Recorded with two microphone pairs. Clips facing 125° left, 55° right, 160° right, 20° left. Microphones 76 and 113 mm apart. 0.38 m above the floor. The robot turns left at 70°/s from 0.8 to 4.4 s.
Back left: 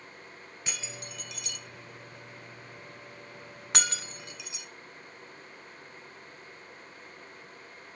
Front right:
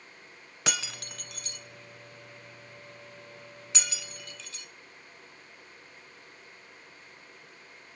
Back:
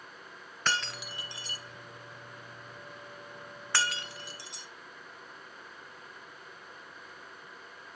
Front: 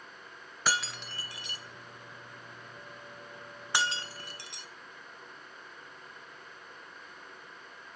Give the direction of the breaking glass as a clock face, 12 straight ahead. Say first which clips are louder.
Front right 7 dB, even; 2 o'clock.